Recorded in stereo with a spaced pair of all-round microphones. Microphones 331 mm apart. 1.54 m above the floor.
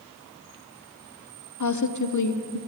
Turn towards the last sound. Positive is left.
turn(degrees=60)  # may be behind; listen again after turning